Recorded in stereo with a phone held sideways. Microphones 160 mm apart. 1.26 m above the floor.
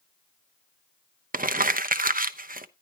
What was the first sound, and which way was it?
Crumpling, 60° right (ahead or behind).